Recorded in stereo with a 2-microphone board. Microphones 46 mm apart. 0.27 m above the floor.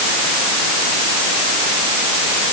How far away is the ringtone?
No ringtone in this recording.